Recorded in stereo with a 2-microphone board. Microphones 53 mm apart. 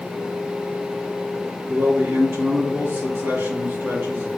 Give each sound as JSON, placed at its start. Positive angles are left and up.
{"t": 1.7, "sound": "a man speaking", "side_deg": -50, "distance_m": 4.5}